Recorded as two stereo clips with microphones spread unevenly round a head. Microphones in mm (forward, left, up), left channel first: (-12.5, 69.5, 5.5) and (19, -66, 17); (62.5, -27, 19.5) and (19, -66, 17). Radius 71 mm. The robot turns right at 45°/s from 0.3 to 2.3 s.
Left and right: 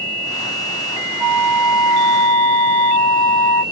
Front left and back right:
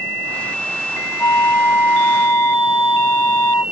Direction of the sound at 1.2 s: 35° right.